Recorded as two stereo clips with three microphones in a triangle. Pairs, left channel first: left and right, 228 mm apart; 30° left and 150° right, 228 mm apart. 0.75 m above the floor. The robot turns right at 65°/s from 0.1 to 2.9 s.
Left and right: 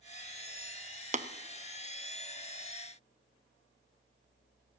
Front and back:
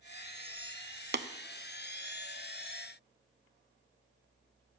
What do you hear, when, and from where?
1.1 s tapping: 140° right, 0.7 m; by 1.3 s 130° right, 0.7 m